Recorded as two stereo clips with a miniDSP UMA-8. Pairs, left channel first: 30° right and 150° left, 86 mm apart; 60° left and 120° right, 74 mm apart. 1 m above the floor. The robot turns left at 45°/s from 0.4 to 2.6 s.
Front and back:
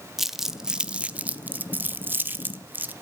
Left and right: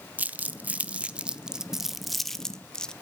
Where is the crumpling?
130° right, 0.5 m; by 2.9 s 130° left, 0.5 m.